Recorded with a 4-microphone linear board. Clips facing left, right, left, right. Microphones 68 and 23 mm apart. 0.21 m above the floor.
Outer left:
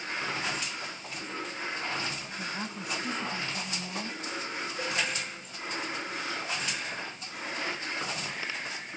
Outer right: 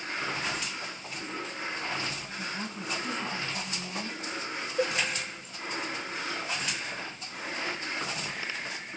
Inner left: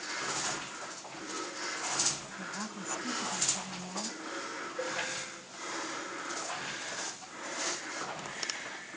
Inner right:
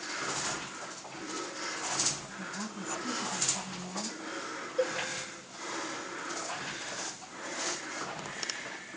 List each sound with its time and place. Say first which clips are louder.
2.4 s a woman speaking: even, inner right 1 dB; 15° left (ahead or behind), 1.2 m
4.8 s a cowbell: outer right 5 dB, inner right 5 dB; 65° right (ahead or behind), 1.1 m